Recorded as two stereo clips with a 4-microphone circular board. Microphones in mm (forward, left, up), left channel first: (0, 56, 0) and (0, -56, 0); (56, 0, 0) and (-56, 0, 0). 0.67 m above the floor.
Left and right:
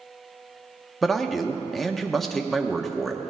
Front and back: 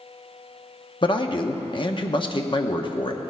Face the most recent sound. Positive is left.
turn(degrees=5)